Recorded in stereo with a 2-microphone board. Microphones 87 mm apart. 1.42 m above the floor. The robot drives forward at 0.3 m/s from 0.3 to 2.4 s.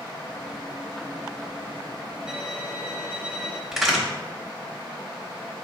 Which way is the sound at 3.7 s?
Centre (ahead or behind).